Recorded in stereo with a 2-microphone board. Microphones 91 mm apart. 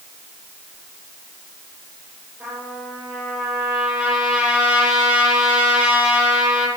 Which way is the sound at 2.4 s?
5° right (ahead or behind).